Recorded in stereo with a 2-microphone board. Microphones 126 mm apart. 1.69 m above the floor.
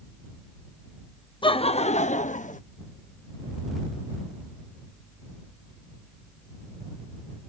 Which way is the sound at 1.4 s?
40° left (ahead or behind).